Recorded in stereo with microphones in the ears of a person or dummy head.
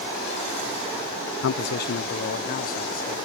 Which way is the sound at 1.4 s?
65° left (ahead or behind).